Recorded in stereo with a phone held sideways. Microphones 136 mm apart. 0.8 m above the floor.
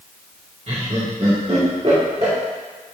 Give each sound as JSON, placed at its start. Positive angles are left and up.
{"t": 0.7, "sound": "laughter", "side_deg": -55, "distance_m": 2.0}